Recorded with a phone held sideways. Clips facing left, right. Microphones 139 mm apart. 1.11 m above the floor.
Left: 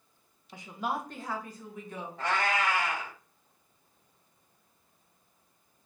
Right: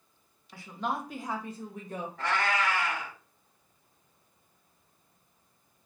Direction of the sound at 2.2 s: 25° left (ahead or behind).